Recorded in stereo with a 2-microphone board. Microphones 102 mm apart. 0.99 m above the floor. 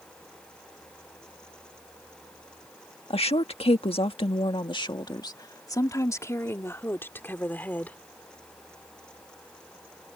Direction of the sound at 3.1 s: 75° left (ahead or behind).